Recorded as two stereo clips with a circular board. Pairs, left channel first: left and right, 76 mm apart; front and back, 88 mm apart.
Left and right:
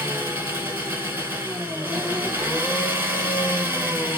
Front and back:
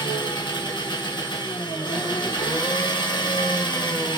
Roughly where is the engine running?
Ahead right.